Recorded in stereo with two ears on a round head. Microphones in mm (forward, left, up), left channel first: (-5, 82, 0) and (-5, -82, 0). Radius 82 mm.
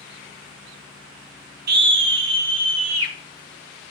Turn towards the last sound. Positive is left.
turn(degrees=-70)  # may be behind; listen again after turning